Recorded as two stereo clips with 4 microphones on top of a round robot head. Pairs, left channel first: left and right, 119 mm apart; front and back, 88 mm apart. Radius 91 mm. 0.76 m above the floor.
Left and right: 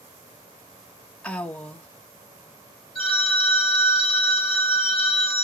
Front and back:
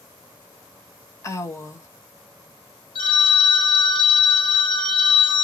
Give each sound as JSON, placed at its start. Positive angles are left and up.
{"t": 1.2, "sound": "a woman speaking", "azimuth_deg": 15, "distance_m": 1.0}
{"t": 3.0, "sound": "a phone ringing", "azimuth_deg": 0, "distance_m": 1.8}